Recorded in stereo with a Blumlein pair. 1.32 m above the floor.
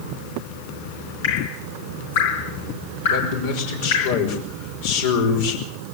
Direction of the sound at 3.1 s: 55° left.